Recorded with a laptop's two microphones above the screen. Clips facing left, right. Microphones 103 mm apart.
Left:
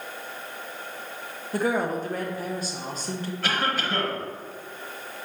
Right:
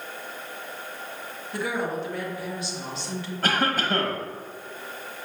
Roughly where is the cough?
Right.